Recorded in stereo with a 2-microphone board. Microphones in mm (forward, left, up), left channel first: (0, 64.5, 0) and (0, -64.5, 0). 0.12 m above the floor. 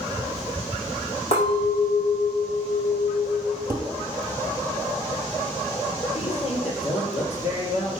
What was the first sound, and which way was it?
A clink, 60° left (ahead or behind).